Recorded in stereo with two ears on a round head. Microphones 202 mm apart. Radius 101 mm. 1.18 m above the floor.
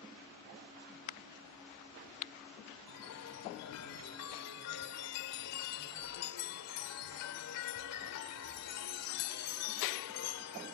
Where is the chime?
75° left (ahead or behind).